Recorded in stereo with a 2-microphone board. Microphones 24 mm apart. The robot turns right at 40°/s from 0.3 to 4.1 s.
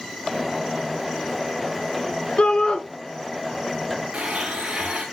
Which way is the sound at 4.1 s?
75° right (ahead or behind).